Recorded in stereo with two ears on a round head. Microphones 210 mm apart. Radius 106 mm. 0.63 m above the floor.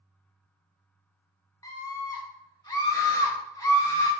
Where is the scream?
15° left (ahead or behind), 1.1 m.